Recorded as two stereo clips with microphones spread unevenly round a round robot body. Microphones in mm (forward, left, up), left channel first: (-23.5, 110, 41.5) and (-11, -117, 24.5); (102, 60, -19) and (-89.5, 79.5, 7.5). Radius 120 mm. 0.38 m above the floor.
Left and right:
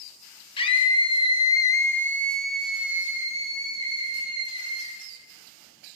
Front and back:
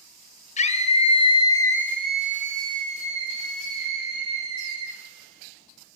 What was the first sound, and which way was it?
A scream, 25° left.